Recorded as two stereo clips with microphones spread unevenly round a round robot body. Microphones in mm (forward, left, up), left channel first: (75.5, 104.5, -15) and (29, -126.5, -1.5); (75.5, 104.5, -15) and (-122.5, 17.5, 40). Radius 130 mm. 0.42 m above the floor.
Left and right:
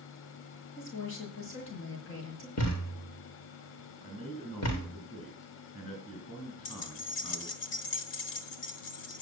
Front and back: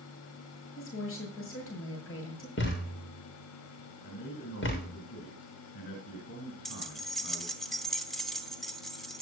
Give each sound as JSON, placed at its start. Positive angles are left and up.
{"t": 0.8, "sound": "a woman speaking", "azimuth_deg": 45, "distance_m": 7.0}
{"t": 2.6, "sound": "a thud", "azimuth_deg": 55, "distance_m": 6.0}
{"t": 4.0, "sound": "a man speaking", "azimuth_deg": -5, "distance_m": 4.5}
{"t": 6.7, "sound": "keys jangling", "azimuth_deg": 100, "distance_m": 1.3}